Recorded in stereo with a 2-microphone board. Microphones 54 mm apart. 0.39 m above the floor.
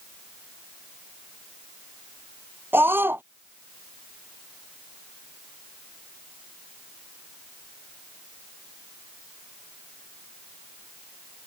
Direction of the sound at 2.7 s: 40° right (ahead or behind).